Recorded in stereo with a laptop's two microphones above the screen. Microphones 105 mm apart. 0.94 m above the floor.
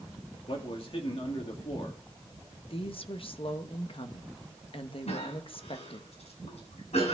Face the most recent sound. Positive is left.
turn(degrees=80)